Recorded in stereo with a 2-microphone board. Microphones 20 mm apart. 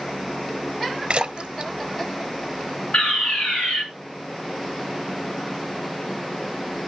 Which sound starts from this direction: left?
A fire alarm, at 2.9 s.